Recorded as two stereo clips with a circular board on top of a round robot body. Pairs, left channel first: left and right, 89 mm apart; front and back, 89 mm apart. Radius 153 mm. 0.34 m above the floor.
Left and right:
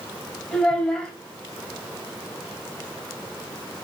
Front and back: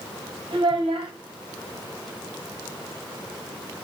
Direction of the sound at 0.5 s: 170° left.